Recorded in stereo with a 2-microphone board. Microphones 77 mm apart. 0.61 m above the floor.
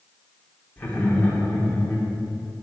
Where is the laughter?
20° left (ahead or behind), 1.9 m.